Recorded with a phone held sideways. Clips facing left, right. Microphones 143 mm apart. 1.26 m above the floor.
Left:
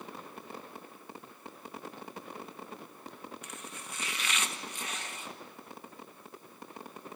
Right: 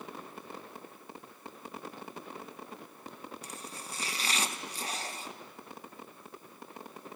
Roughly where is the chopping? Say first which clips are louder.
Right 1 dB; right.